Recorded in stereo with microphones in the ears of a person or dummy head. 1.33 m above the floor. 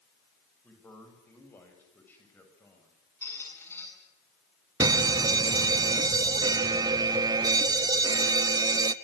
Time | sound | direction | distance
0.6 | a man speaking | 10° left (ahead or behind) | 7 m
3.2 | a squeak | 15° left (ahead or behind) | 8.5 m
4.8 | a fire alarm | 15° right (ahead or behind) | 0.7 m